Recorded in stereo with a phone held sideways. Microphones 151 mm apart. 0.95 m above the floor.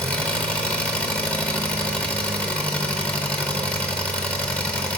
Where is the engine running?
10° left (ahead or behind), 0.9 m.